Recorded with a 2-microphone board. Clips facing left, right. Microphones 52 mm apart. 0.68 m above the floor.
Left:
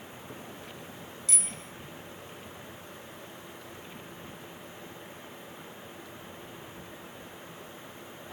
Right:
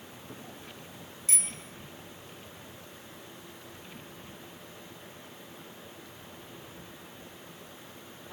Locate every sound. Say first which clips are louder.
1.3 s a bicycle bell: right 2 dB; 35° right (ahead or behind), 4.5 m